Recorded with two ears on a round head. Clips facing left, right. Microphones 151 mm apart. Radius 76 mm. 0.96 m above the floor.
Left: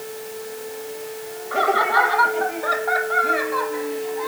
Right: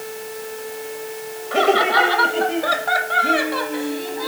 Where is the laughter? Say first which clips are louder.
Right 3 dB; 30° right (ahead or behind); by 4.3 s 35° right (ahead or behind).